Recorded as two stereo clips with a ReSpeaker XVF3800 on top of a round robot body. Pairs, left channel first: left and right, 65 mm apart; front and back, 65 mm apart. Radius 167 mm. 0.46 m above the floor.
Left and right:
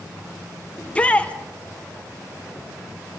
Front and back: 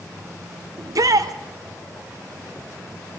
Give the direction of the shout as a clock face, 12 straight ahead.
7 o'clock.